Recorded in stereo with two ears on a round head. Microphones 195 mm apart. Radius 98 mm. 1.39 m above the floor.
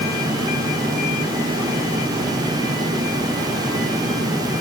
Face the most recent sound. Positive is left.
No sound to turn to.